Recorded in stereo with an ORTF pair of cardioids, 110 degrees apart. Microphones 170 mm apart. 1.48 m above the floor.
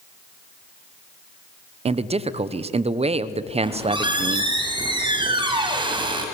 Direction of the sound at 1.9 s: 35° right.